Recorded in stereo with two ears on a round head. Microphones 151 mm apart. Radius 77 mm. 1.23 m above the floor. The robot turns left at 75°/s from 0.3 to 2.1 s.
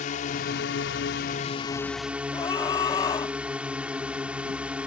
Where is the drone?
130° left; by 4.9 s 5° right.